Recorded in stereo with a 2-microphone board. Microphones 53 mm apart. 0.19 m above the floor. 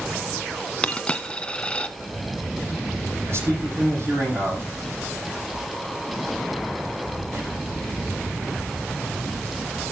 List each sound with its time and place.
0.8 s a dropped coin: 20° left (ahead or behind), 0.9 m
3.3 s a man speaking: 50° right (ahead or behind), 8 m